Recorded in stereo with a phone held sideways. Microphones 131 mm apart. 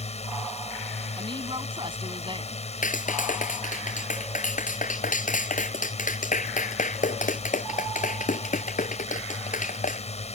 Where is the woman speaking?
40° right (ahead or behind).